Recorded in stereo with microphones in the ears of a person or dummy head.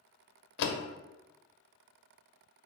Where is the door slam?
65° left (ahead or behind), 0.6 m.